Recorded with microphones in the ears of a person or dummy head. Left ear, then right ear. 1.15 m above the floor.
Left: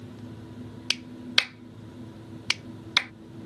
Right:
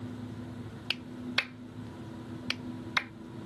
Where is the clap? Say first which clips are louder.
Left 7 dB; 30° left (ahead or behind).